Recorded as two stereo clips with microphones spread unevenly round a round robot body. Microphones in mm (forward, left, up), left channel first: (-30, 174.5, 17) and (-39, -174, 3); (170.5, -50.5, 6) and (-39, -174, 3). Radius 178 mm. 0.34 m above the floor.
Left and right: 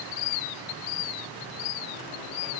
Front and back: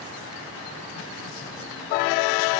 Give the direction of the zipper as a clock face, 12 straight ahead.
No zipper in this recording.